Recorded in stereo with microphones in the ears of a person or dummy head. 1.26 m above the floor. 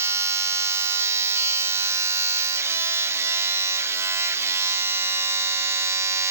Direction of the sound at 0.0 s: 20° right (ahead or behind).